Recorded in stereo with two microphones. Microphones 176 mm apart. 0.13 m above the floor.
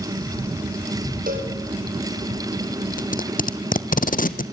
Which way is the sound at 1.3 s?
55° right (ahead or behind).